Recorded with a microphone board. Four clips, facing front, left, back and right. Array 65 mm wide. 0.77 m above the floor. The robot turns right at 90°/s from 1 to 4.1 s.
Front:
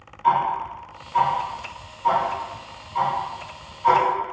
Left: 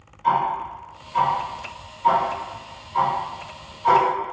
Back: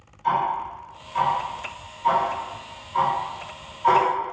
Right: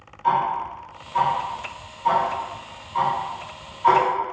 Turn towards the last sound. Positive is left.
turn(degrees=-70)